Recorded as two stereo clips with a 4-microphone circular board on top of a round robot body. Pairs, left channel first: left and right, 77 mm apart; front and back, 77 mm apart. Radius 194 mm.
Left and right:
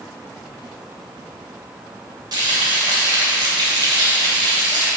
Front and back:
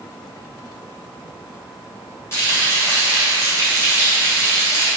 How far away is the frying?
About 2.5 m.